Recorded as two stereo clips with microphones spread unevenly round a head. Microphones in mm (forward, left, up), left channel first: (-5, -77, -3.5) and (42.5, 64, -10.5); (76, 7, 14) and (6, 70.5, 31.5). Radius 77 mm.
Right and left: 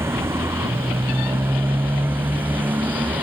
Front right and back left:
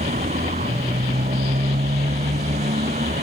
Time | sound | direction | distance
0.0 | a motorcycle | 150° left | ?